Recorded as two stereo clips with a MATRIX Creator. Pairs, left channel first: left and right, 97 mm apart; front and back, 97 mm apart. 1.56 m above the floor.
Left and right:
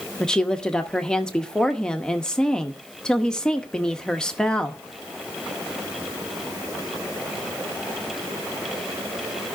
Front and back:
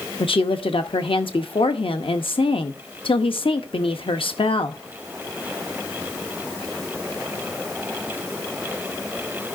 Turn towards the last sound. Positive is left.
turn(degrees=10)